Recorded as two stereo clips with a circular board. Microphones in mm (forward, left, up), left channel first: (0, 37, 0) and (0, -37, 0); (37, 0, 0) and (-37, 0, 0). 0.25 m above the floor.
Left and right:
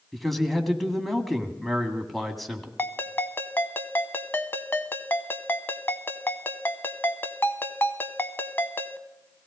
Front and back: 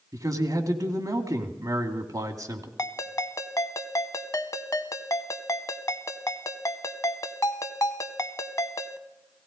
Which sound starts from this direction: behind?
A man speaking, at 0.1 s.